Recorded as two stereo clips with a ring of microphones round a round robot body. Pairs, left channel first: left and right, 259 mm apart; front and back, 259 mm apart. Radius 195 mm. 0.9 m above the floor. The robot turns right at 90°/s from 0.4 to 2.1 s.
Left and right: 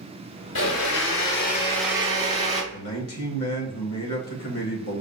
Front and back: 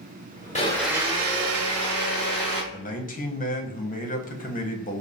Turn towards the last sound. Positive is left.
turn(degrees=60)